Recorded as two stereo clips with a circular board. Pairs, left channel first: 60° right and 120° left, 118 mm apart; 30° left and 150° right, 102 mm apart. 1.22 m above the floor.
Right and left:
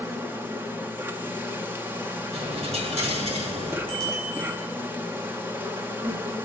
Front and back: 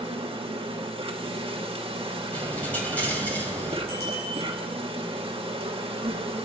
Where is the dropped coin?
105° left, 2.5 m.